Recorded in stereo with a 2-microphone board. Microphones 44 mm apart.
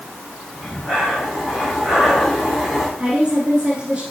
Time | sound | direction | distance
0.6 | breathing | centre (ahead or behind) | 5.5 m
3.0 | a woman speaking | 25° right (ahead or behind) | 2.5 m